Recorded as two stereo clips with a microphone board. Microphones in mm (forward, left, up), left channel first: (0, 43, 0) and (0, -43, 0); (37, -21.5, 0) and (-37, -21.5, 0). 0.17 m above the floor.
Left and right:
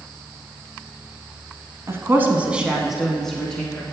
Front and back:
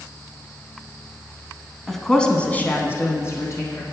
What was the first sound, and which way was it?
A woman speaking, 90° right.